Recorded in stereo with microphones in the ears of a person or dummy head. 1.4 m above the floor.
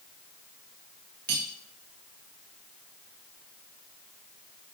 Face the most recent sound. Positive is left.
turn(degrees=-55)  # may be behind; listen again after turning